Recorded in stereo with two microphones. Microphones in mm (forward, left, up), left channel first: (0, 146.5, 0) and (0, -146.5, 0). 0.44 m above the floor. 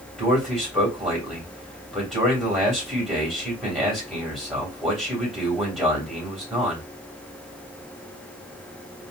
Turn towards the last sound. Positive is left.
turn(degrees=0)  # may be behind; listen again after turning